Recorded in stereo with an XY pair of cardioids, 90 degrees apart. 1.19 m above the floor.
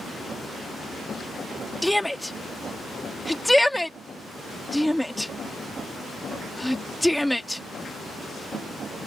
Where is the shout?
5° left.